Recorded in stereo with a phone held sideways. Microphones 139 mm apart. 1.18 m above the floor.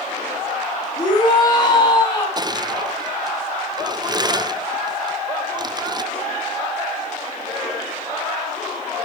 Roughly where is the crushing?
Right.